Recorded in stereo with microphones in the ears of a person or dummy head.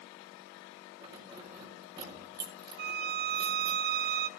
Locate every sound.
1.0 s keys jangling: 25° right (ahead or behind), 4.5 m
2.8 s a violin: 55° right (ahead or behind), 0.7 m